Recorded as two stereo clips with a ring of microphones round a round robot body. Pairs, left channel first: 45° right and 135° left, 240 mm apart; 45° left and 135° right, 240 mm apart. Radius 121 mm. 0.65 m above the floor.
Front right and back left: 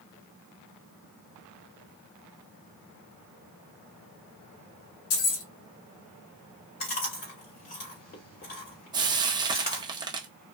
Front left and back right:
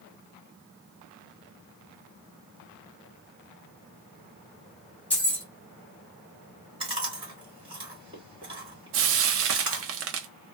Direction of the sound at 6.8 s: 75° right.